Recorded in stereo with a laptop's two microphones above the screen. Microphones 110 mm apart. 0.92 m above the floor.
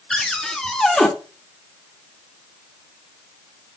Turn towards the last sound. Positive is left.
turn(degrees=5)  # may be behind; listen again after turning